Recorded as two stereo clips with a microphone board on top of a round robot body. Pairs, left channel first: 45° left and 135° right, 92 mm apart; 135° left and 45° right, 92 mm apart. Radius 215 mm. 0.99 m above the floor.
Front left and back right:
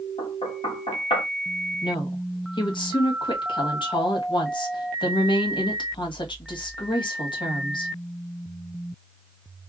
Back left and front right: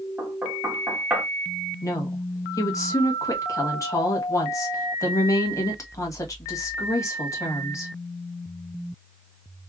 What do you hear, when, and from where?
0.2 s knocking: 30° left, 1.9 m
1.8 s a woman speaking: 80° left, 1.3 m